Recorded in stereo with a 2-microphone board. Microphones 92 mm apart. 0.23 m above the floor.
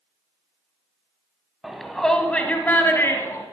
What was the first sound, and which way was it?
A shout, 5° right (ahead or behind).